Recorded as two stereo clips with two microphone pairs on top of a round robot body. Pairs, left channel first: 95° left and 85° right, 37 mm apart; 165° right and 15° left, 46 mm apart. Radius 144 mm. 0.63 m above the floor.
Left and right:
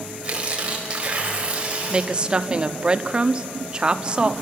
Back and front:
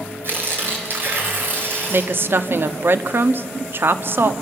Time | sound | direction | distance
0.2 | tearing paper | 25° right | 4 m
1.9 | a woman speaking | 15° right | 1.2 m